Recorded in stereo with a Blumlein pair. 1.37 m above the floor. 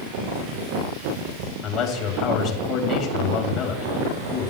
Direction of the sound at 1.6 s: 40° left.